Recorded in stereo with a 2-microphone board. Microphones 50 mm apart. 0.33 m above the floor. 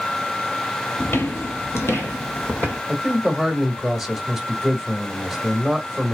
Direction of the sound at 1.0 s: 50° left (ahead or behind).